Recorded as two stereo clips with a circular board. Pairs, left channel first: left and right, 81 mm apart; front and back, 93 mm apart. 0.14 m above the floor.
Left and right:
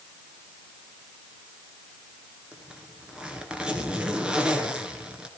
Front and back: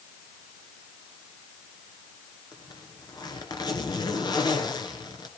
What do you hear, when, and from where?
2.5 s a zipper: 15° right, 2.5 m